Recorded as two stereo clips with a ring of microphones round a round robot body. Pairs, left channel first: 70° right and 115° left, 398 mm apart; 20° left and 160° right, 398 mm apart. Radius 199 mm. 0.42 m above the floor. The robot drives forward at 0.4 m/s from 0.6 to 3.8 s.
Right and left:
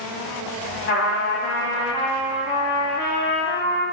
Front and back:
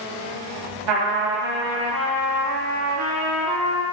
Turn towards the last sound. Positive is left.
turn(degrees=-155)